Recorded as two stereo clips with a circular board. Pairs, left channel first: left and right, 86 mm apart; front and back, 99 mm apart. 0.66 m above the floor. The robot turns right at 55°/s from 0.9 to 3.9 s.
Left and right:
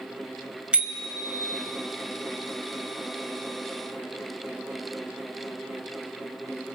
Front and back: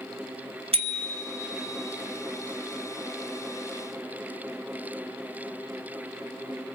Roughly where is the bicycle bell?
Behind.